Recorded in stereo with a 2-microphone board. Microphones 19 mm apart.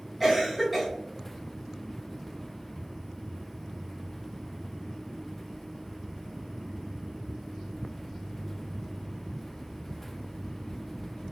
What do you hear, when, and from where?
0.2 s a cough: 10° right (ahead or behind), 1.1 m